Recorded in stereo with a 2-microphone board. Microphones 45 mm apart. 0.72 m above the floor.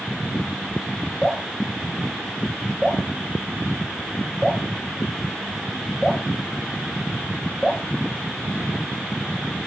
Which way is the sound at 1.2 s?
5° right (ahead or behind).